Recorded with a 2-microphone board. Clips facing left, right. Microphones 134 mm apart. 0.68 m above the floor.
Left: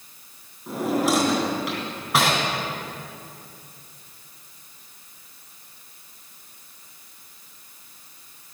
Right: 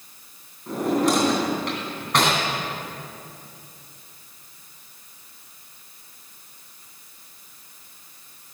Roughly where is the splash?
No splash in this recording.